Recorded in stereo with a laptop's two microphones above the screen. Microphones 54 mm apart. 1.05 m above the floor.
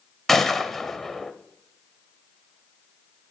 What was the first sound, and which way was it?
A gunshot, 5° left (ahead or behind).